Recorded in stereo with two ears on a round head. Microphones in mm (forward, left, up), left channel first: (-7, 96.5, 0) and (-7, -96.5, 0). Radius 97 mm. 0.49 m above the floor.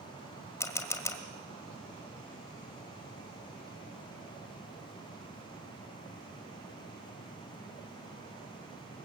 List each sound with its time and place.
0.6 s a camera shutter: 15° left (ahead or behind), 1.8 m